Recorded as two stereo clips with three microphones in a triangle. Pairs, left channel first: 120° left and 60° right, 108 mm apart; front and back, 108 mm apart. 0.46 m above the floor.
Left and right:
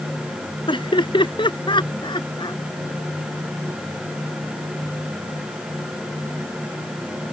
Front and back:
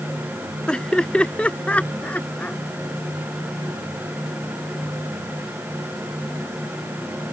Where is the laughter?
80° left; by 2.6 s 75° left.